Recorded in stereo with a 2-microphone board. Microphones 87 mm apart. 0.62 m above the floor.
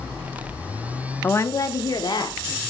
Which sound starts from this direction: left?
A woman speaking, at 1.2 s.